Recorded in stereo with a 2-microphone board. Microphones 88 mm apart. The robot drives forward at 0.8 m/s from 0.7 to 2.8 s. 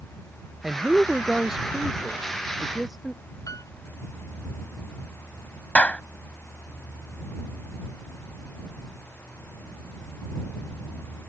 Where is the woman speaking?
5° right (ahead or behind); by 3.2 s centre (ahead or behind).